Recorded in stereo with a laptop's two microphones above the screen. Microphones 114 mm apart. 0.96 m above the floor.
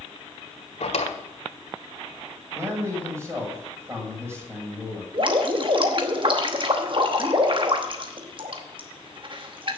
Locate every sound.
0.8 s a drawer: 70° left (ahead or behind), 1.8 m
2.5 s a man speaking: 20° right (ahead or behind), 6 m
5.1 s dripping: 45° right (ahead or behind), 0.9 m